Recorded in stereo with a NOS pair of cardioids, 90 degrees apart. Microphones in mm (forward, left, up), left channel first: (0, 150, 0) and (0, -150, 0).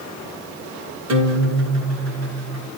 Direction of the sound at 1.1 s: 65° right.